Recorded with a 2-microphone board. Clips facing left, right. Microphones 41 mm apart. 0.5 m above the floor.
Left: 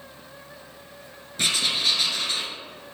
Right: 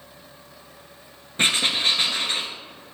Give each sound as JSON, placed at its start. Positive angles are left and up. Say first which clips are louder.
{"t": 1.4, "sound": "writing", "louder": "right 3 dB", "side_deg": -35, "distance_m": 1.4}